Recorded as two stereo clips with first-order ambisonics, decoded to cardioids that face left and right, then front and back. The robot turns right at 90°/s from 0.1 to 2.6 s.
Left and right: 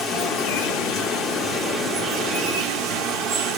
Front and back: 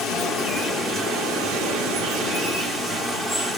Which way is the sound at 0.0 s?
35° left.